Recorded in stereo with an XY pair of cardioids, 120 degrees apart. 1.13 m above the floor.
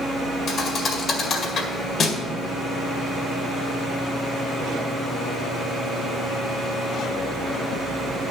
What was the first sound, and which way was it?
A thud, 45° left.